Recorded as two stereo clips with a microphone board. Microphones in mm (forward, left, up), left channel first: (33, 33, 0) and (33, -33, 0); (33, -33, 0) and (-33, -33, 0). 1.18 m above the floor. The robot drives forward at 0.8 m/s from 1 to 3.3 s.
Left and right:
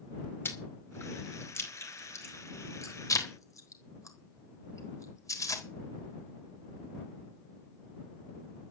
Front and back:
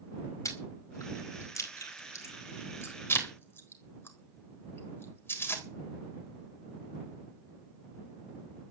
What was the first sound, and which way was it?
Chewing, 35° left.